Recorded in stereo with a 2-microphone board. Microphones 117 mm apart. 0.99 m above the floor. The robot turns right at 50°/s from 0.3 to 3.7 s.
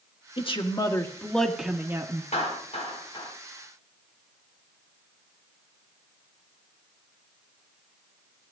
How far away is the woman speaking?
About 1.4 m.